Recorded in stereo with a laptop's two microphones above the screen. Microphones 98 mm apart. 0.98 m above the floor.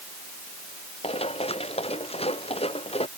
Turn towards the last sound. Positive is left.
turn(degrees=85)